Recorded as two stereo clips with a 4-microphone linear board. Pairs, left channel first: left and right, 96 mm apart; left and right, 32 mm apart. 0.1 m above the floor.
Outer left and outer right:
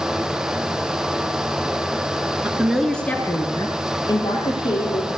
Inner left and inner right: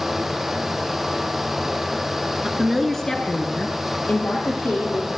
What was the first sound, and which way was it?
A woman speaking, 20° right (ahead or behind).